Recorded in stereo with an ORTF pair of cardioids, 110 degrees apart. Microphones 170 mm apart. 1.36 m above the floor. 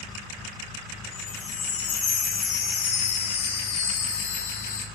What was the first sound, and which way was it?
A chime, 45° left.